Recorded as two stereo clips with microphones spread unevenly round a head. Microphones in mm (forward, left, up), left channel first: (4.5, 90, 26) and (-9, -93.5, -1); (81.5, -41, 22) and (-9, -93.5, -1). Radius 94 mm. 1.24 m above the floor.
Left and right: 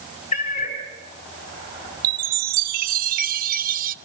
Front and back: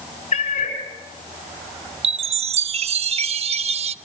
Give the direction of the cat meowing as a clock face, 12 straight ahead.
11 o'clock.